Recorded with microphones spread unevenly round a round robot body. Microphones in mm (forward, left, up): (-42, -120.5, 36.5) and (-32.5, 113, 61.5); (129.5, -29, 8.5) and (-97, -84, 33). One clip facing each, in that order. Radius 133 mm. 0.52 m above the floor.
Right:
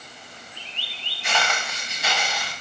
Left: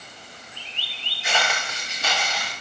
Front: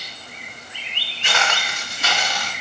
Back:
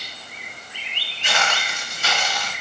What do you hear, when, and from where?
1.2 s footsteps: straight ahead, 4 m; by 2.5 s 15° right, 4.5 m